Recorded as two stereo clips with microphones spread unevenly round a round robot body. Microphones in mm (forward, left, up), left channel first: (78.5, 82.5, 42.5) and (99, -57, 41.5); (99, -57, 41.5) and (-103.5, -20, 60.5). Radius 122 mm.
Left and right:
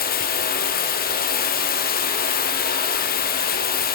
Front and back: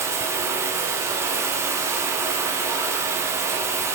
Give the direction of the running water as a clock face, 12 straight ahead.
9 o'clock.